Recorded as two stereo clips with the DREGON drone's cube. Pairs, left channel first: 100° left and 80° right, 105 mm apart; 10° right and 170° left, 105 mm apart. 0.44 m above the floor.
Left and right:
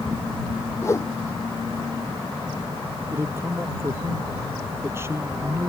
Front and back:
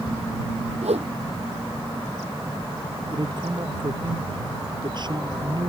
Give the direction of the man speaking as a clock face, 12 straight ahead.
5 o'clock.